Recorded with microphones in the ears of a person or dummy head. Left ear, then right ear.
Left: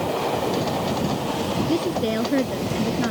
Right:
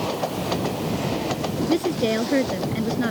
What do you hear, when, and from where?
1.7 s a woman speaking: 20° right (ahead or behind)